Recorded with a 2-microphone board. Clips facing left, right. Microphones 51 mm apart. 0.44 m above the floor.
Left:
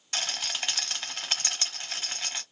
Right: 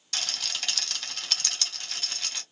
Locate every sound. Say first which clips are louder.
0.1 s a rattle: left 1 dB; 25° left (ahead or behind), 1.5 m